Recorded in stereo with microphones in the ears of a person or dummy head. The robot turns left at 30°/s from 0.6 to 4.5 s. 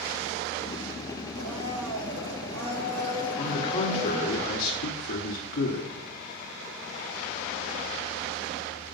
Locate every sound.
1.4 s a blender: 70° right, 1.4 m; by 4.4 s 160° right, 1.4 m
3.4 s a man speaking: 160° left, 1.1 m; by 5.9 s 125° left, 1.1 m